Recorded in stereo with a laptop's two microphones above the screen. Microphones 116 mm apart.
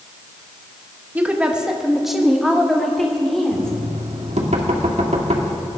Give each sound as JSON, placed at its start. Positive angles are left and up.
{"t": 1.1, "sound": "a woman speaking", "side_deg": -15, "distance_m": 1.0}
{"t": 3.5, "sound": "knocking", "side_deg": -75, "distance_m": 1.9}